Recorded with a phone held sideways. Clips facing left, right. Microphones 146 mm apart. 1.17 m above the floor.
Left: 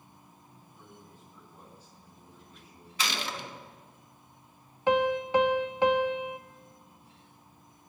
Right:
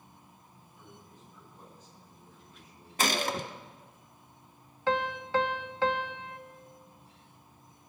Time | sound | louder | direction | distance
0.8 | a man speaking | even | 35° left (ahead or behind) | 8 m
3.0 | a gunshot | right 5 dB | 50° right (ahead or behind) | 0.9 m
4.9 | a piano | left 5 dB | 20° left (ahead or behind) | 0.8 m